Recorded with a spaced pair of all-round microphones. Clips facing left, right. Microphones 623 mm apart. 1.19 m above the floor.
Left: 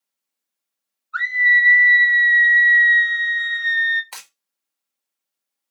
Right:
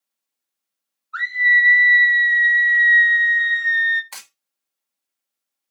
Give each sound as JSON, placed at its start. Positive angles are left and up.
{"t": 1.1, "sound": "a scream", "side_deg": -5, "distance_m": 0.7}
{"t": 4.1, "sound": "breaking glass", "side_deg": -45, "distance_m": 2.0}